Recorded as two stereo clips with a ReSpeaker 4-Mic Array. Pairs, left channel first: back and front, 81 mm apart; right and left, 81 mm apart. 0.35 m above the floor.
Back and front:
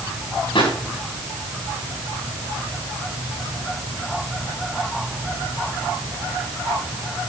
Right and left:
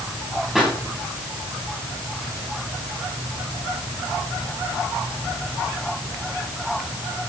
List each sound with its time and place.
0.6 s a pop: 175° left, 8 m